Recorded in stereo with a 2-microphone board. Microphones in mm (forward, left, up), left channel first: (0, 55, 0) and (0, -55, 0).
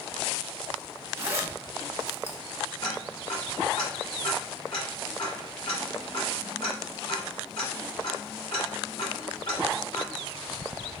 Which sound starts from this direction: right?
A zipper, at 1.2 s.